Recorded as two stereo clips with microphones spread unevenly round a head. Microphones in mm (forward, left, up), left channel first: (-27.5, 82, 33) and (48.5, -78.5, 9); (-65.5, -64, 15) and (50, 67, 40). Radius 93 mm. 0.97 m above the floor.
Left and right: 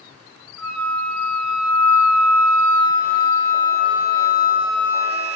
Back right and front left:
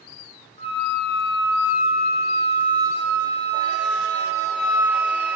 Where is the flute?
70° right, 1.6 m.